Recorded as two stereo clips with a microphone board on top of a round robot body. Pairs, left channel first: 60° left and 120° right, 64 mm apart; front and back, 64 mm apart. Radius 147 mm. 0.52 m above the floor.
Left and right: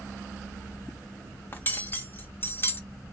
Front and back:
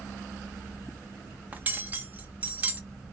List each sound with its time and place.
1.5 s cutlery clinking: 115° left, 0.9 m